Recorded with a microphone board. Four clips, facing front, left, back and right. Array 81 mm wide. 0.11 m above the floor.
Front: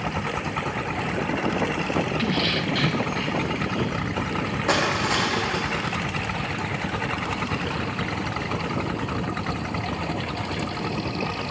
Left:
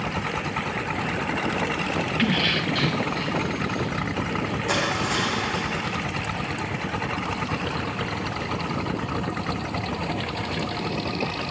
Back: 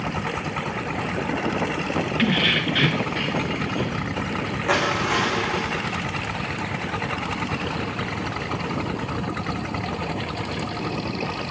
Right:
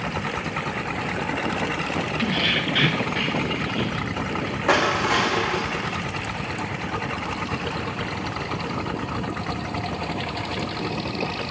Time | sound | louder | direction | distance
2.2 | keys jangling | left 1 dB, back 3 dB | 155° left | 1.2 m
4.7 | crushing | right 7 dB, back 2 dB | 75° right | 5 m